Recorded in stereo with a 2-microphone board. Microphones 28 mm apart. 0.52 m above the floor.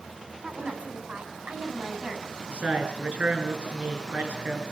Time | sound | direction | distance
0.4 | a woman speaking | 45° right (ahead or behind) | 5 m
2.5 | a man speaking | 65° right (ahead or behind) | 7 m